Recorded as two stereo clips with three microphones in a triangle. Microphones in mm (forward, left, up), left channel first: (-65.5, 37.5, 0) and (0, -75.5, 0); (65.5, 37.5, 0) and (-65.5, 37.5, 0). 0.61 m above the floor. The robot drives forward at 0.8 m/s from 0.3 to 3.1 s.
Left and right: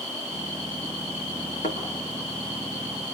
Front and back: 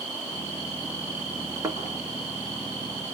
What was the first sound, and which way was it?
A thud, 115° left.